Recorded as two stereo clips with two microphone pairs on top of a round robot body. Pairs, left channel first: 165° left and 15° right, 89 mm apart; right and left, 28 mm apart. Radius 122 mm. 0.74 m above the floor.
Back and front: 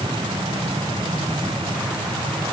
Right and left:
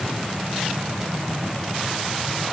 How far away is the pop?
No pop in this recording.